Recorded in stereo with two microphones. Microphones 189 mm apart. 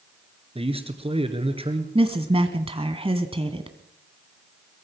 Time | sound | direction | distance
0.6 | a man speaking | 30° right (ahead or behind) | 2.5 m
1.9 | a woman speaking | 30° right (ahead or behind) | 1.5 m